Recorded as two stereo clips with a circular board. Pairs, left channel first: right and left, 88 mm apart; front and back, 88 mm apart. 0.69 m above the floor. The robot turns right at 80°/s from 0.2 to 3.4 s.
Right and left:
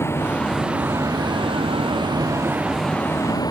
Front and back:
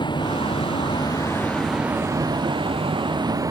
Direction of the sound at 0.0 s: 30° right.